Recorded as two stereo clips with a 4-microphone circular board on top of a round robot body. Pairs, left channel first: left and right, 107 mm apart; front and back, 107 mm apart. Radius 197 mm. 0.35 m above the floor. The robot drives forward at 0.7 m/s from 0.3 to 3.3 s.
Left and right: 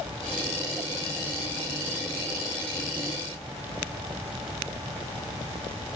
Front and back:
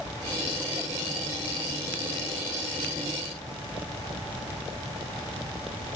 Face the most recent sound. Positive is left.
No sound to turn to.